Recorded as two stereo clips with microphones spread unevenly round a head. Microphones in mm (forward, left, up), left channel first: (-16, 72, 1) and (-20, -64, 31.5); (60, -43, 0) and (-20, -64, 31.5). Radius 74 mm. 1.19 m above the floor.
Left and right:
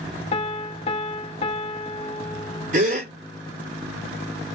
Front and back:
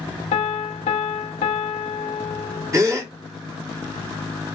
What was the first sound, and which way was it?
A piano, 30° left.